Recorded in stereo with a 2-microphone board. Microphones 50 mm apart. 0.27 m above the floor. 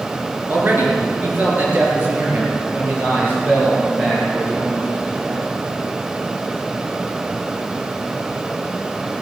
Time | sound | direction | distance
0.5 | a man speaking | 40° right (ahead or behind) | 4.5 m